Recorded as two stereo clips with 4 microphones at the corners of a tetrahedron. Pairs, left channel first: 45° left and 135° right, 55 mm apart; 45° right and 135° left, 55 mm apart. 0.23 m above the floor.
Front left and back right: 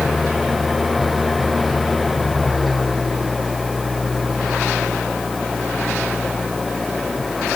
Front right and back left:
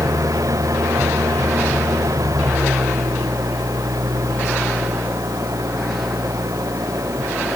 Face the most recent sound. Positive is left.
turn(degrees=135)